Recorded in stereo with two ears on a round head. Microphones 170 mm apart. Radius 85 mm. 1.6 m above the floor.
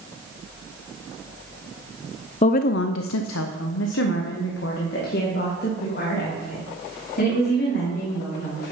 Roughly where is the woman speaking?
Left.